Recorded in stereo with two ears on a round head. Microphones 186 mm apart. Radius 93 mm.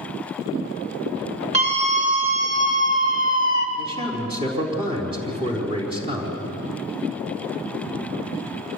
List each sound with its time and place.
1.5 s a scream: 35° right (ahead or behind), 5 m; by 3.7 s 45° right (ahead or behind), 3.5 m
3.8 s a man speaking: 25° right (ahead or behind), 4.5 m